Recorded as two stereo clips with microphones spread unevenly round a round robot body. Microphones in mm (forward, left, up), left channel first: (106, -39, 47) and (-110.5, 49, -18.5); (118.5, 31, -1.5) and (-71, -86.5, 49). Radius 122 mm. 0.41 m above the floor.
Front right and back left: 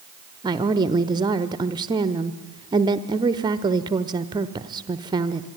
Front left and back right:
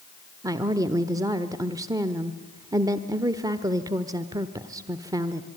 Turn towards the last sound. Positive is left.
turn(degrees=130)